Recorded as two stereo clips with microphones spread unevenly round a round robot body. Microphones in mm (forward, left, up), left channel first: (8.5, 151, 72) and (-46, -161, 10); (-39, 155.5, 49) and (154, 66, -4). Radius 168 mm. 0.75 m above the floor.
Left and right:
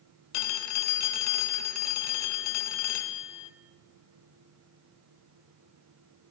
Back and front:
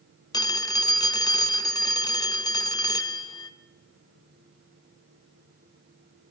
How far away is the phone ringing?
About 1.8 m.